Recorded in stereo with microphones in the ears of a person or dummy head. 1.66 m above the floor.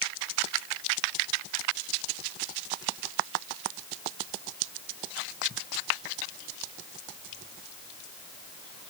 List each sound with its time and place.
Only background noise.